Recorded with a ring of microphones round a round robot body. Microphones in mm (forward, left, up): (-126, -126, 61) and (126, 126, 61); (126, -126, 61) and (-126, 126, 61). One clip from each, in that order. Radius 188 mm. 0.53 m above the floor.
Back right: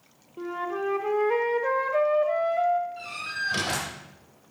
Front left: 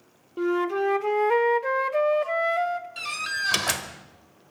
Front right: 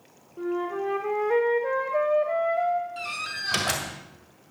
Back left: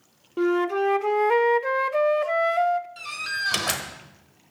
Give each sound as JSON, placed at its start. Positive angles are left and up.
{"t": 0.4, "sound": "a flute", "azimuth_deg": 105, "distance_m": 0.6}
{"t": 3.0, "sound": "a door slam", "azimuth_deg": 60, "distance_m": 1.6}